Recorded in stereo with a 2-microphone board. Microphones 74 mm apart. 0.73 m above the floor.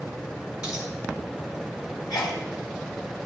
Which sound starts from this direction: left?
A sneeze, at 2.1 s.